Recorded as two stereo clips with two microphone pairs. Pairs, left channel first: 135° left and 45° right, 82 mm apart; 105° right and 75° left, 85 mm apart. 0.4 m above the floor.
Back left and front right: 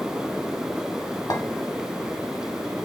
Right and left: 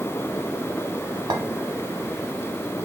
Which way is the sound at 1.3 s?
100° left.